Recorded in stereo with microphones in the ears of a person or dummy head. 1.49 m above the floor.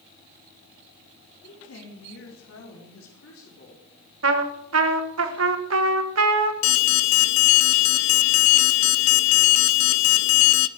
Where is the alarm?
65° left (ahead or behind), 0.7 m.